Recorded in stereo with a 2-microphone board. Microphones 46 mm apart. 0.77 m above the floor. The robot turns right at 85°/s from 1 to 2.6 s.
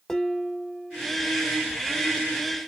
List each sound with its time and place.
0.1 s dishes clattering: 10° left (ahead or behind), 1.4 m; by 1.1 s 20° left (ahead or behind), 1.4 m